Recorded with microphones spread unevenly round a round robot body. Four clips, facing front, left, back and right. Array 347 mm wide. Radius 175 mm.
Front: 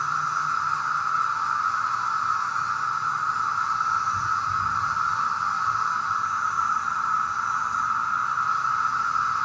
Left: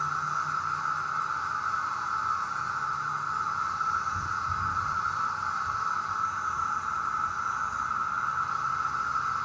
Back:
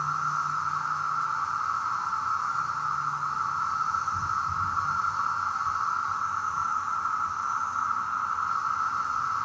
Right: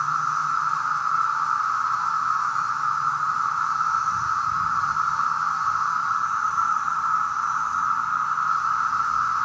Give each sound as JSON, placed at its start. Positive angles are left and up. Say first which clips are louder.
{"t": 0.0, "sound": "an insect", "louder": "right 6 dB, front 3 dB", "azimuth_deg": -100, "distance_m": 1.8}